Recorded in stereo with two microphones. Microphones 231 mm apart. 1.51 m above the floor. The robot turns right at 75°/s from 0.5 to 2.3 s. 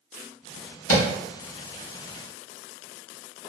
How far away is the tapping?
About 0.8 m.